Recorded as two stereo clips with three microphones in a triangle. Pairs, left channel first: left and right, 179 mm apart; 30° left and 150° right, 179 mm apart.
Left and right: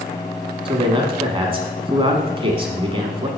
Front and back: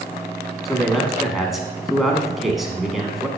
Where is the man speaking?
60° right, 1.1 m.